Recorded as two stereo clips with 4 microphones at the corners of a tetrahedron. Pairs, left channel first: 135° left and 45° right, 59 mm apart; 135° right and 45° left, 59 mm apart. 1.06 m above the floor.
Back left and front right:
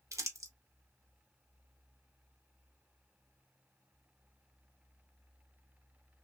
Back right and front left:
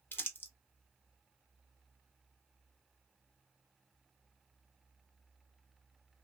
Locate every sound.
0.1 s crumpling: 80° right, 0.8 m